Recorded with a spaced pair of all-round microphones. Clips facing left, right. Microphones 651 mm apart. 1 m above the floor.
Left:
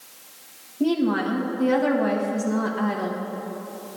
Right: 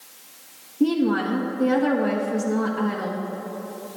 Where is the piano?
I don't hear a piano.